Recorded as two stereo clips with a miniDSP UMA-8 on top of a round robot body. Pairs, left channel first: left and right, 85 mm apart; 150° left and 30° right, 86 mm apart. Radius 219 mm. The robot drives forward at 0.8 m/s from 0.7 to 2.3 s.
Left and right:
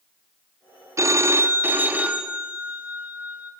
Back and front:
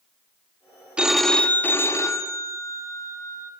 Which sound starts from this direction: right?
A phone ringing, at 1.0 s.